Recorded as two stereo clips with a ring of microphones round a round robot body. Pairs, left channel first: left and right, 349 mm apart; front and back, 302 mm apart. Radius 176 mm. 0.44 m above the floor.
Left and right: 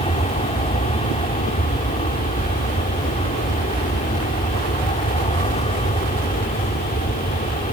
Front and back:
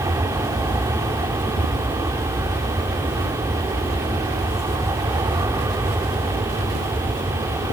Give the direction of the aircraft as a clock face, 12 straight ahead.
8 o'clock.